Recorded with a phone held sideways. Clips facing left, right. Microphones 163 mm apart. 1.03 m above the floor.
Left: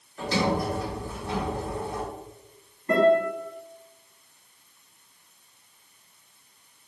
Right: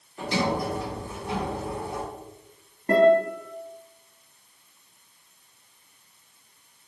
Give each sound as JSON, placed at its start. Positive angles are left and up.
{"t": 0.2, "sound": "a sliding door", "side_deg": -20, "distance_m": 1.6}
{"t": 2.9, "sound": "a guitar", "side_deg": -50, "distance_m": 2.0}